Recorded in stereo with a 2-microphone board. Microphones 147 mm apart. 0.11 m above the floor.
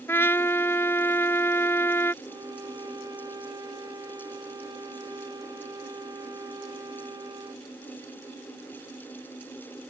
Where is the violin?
25° right (ahead or behind).